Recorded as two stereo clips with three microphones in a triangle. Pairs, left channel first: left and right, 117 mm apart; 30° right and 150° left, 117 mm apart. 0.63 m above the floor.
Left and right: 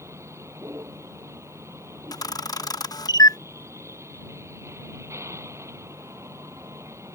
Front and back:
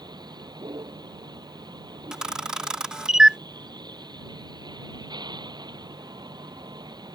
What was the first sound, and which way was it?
A vehicle, 155° right.